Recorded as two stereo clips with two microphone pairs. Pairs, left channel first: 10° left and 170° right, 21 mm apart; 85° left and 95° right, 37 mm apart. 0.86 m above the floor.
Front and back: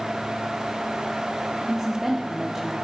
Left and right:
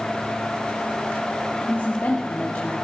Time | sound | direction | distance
1.7 | a woman speaking | 125° left | 1.9 m